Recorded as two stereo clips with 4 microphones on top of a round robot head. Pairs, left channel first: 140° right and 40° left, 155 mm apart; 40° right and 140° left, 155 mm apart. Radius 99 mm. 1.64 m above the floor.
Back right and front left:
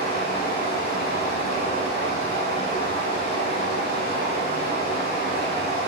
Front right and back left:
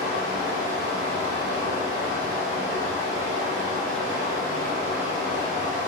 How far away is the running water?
About 1.5 m.